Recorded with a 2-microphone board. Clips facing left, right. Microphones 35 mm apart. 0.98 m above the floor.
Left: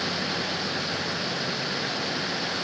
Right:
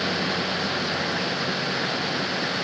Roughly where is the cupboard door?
I don't hear a cupboard door.